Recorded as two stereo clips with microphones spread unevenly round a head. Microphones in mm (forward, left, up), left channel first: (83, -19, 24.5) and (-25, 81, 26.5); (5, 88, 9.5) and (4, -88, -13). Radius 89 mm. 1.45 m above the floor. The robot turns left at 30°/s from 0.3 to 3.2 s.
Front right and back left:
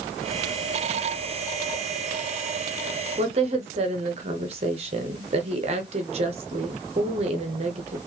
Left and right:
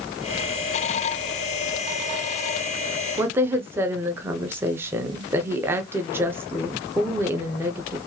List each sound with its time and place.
3.2 s a woman speaking: 165° right, 0.8 m